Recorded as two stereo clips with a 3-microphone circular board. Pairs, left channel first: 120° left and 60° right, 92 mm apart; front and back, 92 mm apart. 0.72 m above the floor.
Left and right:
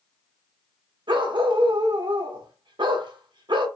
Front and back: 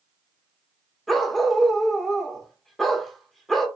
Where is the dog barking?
90° right, 0.7 m.